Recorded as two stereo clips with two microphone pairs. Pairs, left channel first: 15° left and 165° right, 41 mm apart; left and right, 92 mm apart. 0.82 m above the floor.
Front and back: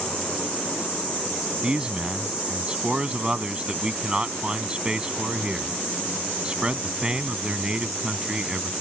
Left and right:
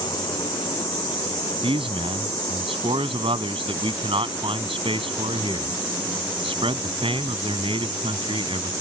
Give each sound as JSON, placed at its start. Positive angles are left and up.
{"t": 1.6, "sound": "a man speaking", "azimuth_deg": -100}